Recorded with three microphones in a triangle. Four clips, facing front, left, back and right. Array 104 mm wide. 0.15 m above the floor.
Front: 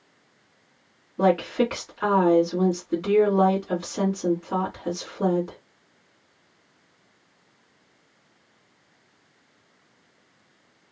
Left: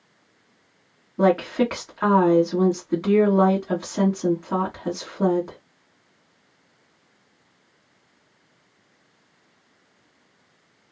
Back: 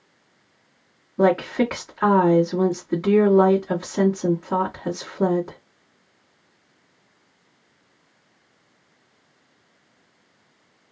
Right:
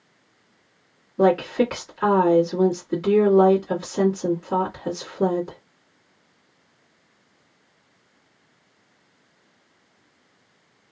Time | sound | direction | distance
1.2 | a woman speaking | 135° left | 1.6 m